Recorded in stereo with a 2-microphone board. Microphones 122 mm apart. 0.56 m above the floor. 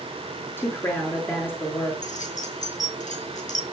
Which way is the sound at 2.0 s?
85° left.